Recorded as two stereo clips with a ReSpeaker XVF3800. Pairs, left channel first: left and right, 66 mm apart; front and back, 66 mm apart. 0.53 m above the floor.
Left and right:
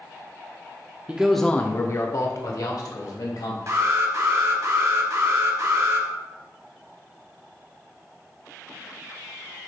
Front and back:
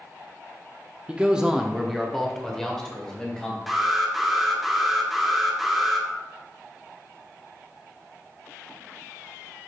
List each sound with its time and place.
1.1 s a man speaking: 135° right, 0.7 m; by 3.6 s 80° left, 2.5 m
3.7 s an alarm: 90° right, 1.3 m